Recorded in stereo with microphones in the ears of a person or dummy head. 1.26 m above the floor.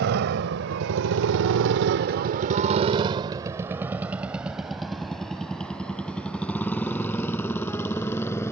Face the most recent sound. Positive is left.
turn(degrees=10)  # may be behind; listen again after turning